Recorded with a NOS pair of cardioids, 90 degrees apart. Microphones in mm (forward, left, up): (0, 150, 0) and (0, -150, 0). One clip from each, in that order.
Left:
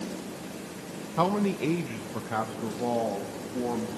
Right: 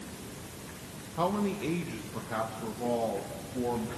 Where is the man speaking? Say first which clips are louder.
Left 4 dB; 40° left, 1.1 m; by 3.9 s 25° left, 2.5 m.